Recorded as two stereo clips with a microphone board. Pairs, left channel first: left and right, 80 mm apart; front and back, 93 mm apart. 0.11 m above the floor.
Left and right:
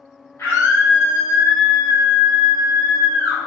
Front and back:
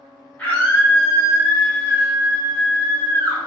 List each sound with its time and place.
0.4 s a scream: 65° left, 1.8 m; by 3.4 s 175° left, 2.5 m